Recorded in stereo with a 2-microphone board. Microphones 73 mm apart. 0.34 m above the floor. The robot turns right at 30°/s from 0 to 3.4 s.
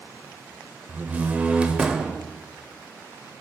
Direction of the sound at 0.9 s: 20° right (ahead or behind).